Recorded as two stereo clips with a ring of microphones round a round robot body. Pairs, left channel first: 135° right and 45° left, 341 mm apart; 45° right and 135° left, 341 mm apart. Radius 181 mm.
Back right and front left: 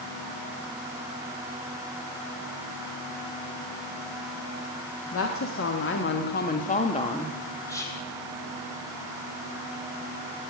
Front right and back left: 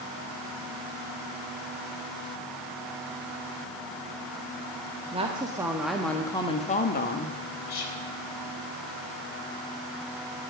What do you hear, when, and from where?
5.1 s a woman speaking: 160° right, 1.6 m; by 7.4 s 60° right, 1.4 m
7.7 s whispering: 55° right, 3.5 m